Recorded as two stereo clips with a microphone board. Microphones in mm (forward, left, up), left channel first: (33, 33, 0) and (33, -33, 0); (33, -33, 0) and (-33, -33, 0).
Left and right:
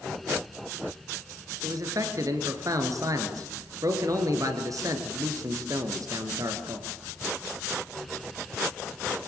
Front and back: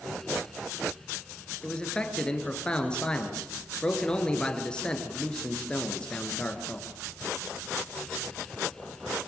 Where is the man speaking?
75° right, 3 m.